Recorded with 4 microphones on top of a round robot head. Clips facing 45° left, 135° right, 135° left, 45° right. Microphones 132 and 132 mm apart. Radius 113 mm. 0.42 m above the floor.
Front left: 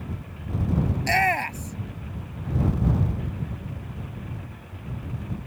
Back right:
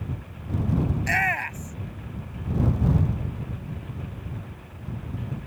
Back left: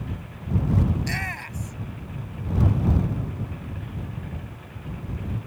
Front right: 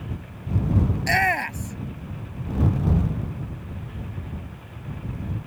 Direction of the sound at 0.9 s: 15° right.